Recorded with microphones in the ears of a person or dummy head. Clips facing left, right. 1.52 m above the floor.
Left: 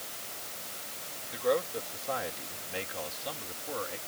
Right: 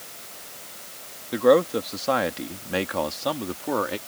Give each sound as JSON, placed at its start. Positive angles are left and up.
{"t": 1.3, "sound": "a man speaking", "side_deg": -65}